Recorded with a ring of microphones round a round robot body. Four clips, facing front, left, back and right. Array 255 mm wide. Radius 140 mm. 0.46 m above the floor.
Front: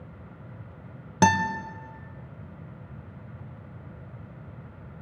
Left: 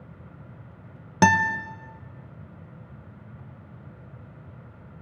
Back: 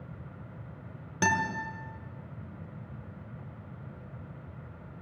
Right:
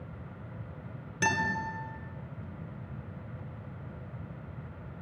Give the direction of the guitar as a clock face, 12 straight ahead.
10 o'clock.